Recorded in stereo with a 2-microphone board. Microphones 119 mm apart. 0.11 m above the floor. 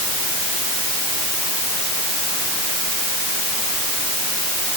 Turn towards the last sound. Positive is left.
No sound to turn to.